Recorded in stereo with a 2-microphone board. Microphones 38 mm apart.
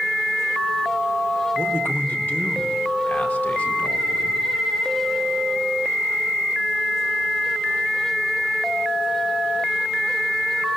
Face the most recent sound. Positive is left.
turn(degrees=55)  # may be behind; listen again after turning